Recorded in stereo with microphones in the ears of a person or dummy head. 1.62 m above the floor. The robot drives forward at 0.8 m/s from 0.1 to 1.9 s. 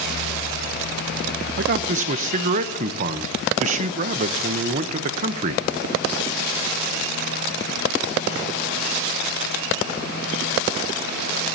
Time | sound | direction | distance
1.6 | a man speaking | 55° right (ahead or behind) | 0.7 m